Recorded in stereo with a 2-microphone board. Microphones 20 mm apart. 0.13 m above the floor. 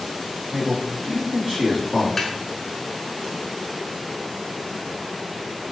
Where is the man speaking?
45° right (ahead or behind), 1.9 m.